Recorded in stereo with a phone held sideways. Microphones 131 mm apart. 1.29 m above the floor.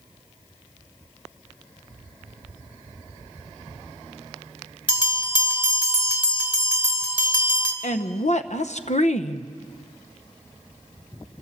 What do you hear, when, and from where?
4.9 s a bell: 35° left (ahead or behind), 2.5 m
7.8 s a woman speaking: 60° left (ahead or behind), 0.9 m